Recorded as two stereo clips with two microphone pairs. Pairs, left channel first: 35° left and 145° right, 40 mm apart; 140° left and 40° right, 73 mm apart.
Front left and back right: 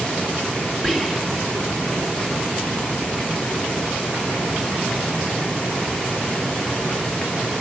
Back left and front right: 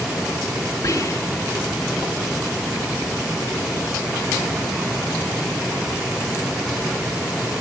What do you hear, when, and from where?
0.8 s whispering: 140° left, 3 m